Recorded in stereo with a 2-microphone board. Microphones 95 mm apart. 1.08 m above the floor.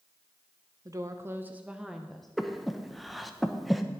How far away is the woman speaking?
About 0.8 m.